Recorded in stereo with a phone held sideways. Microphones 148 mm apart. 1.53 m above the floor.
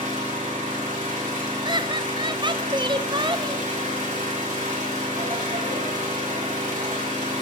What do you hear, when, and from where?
0.0 s an engine running: 60° right (ahead or behind), 3.5 m
1.6 s laughter: 30° right (ahead or behind), 0.6 m